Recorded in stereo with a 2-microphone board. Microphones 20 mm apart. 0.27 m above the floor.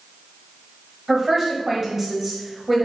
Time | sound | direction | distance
1.1 | a woman speaking | 20° right (ahead or behind) | 1.0 m